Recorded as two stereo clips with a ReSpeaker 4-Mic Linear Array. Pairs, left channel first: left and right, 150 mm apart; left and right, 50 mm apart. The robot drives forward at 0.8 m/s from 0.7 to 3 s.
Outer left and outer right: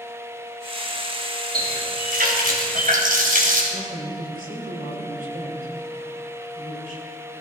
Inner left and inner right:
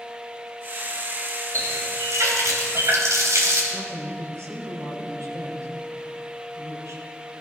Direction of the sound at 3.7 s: 70° right (ahead or behind).